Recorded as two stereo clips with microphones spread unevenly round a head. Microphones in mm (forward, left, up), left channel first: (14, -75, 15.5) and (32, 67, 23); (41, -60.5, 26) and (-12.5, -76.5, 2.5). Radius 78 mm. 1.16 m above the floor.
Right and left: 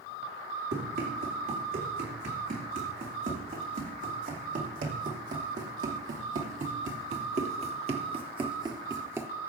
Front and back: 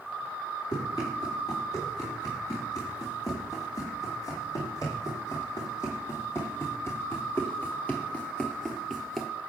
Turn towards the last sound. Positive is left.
turn(degrees=50)